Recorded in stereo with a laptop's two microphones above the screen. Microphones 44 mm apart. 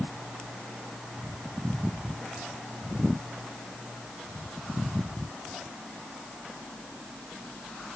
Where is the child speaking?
I don't hear a child speaking.